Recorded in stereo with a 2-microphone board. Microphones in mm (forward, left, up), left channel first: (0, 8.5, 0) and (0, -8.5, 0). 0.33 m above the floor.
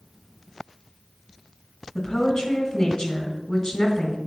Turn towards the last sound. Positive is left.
turn(degrees=35)  # may be behind; listen again after turning